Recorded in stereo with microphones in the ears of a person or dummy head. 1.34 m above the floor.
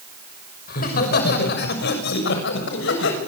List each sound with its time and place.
0.7 s laughter: 55° left (ahead or behind), 6 m; by 3.2 s 75° left (ahead or behind), 7.5 m